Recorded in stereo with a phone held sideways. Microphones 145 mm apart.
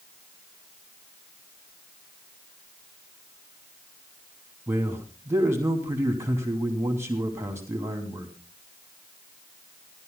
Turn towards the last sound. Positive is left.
turn(degrees=-15)  # may be behind; listen again after turning